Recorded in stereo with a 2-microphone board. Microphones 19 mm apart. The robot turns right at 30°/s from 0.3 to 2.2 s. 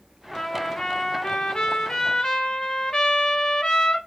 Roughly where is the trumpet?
Ahead left.